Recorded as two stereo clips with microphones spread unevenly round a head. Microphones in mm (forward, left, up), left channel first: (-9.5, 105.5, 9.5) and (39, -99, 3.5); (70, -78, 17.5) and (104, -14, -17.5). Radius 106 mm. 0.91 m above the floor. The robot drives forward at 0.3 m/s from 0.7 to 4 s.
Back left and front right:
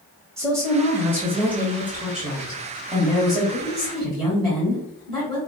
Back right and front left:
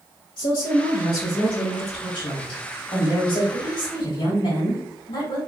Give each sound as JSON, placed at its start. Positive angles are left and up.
{"t": 0.4, "sound": "a woman speaking", "azimuth_deg": -170, "distance_m": 0.6}